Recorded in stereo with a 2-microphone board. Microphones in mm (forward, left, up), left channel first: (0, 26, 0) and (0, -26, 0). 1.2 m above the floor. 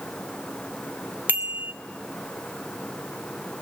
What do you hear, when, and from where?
1.3 s a bicycle bell: 35° right (ahead or behind), 2.5 m